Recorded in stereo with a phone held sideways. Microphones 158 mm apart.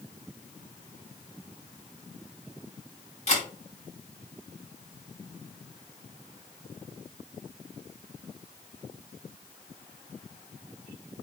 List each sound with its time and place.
3.3 s a camera shutter: 45° left (ahead or behind), 1.6 m